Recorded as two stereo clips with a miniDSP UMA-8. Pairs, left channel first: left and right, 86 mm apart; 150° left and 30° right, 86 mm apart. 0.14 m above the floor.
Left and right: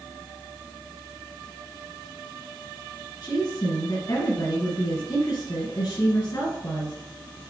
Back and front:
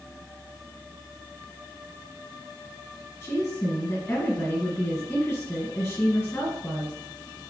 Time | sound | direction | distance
3.2 | a woman speaking | 100° left | 2 m